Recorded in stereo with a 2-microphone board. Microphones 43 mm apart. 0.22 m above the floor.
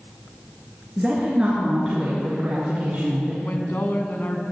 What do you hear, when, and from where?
1.0 s a woman speaking: 20° right (ahead or behind), 3.5 m; by 3.3 s 40° right (ahead or behind), 3.5 m
3.4 s a woman speaking: 50° left (ahead or behind), 1.5 m